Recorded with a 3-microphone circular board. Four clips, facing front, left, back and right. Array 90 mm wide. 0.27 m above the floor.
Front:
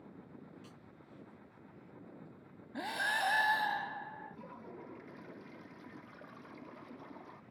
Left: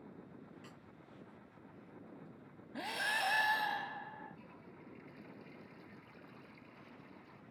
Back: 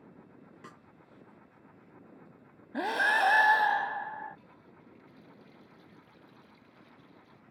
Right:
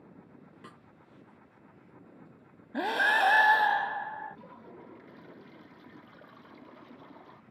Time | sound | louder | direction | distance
0.6 | a snare drum | right 5 dB, back 5 dB | 140° right | ?
2.7 | breathing | right 12 dB, back 8 dB | 125° right | ?
4.3 | a toilet flushing | right 7 dB, front 5 dB | 45° right | ?